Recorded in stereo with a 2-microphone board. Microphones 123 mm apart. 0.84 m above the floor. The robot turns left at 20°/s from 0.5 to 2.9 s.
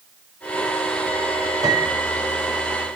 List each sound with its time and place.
1.6 s a piano: 30° right (ahead or behind), 9 m; by 2.1 s 40° right (ahead or behind), 9 m